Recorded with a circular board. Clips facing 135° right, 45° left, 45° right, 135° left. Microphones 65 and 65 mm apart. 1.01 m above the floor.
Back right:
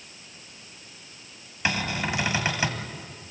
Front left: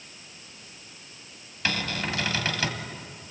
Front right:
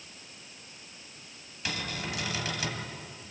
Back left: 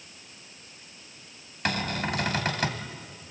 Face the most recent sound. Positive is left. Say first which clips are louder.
# back right 2 dB, back left 7 dB
turn(degrees=155)